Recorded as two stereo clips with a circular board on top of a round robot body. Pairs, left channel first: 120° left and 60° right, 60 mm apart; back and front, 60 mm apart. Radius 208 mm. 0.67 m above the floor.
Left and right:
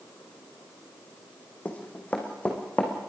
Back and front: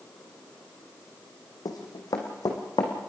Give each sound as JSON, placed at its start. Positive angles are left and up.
{"t": 1.6, "sound": "running footsteps", "azimuth_deg": -170, "distance_m": 2.5}